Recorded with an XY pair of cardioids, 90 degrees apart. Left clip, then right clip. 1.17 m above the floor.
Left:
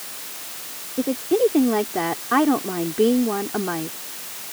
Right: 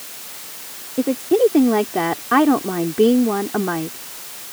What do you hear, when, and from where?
1.0 s a woman speaking: 30° right